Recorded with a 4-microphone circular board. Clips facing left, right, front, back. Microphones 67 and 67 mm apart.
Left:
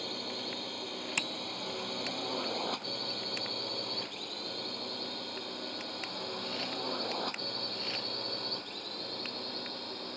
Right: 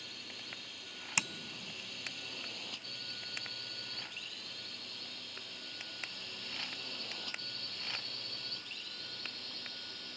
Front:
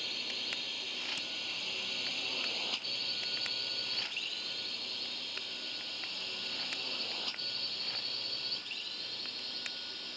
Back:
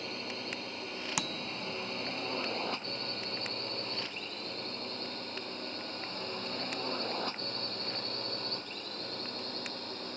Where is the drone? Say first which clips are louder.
Left 11 dB, back 4 dB; 120° left; by 10.2 s 130° left.